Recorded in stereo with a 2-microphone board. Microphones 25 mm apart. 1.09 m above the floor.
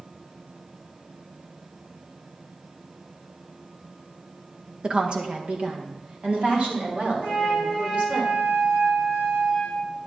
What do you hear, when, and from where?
4.8 s a woman speaking: 40° right (ahead or behind), 1.0 m; by 8.2 s 50° right (ahead or behind), 5 m
7.2 s a flute: 60° right (ahead or behind), 4.5 m